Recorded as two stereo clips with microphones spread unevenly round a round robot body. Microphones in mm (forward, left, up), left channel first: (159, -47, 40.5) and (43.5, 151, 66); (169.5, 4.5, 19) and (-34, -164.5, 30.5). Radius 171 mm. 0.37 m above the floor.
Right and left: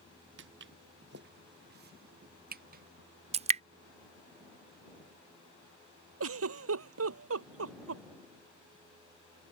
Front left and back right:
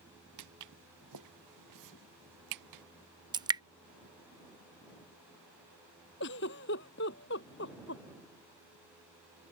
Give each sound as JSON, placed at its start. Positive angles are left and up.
{"t": 0.4, "sound": "footsteps", "azimuth_deg": 175}
{"t": 3.3, "sound": "dripping", "azimuth_deg": 160}
{"t": 6.2, "sound": "a giggle", "azimuth_deg": 100}